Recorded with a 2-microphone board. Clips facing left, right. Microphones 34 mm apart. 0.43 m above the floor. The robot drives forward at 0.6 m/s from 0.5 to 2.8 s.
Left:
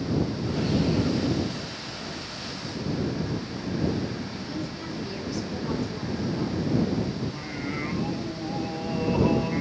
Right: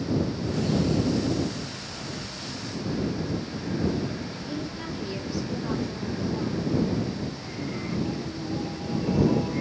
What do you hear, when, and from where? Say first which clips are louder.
4.5 s a woman speaking: even; 20° right (ahead or behind), 4 m
7.2 s singing: left 1 dB; 50° left (ahead or behind), 1.0 m